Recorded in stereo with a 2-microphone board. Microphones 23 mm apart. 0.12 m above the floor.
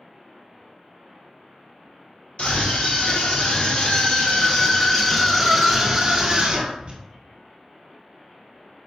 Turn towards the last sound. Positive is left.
turn(degrees=-35)  # may be behind; listen again after turning